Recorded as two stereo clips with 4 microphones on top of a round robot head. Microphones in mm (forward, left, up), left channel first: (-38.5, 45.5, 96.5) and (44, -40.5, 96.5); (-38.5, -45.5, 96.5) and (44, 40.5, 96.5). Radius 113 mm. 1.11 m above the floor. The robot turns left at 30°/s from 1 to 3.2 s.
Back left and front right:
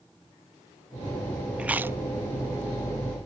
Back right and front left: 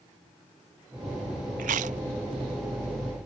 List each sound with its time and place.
1.6 s chewing: 35° left; by 2.0 s 25° left